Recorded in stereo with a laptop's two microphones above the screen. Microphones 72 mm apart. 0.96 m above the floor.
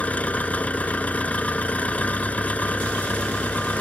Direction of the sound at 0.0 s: 20° left (ahead or behind).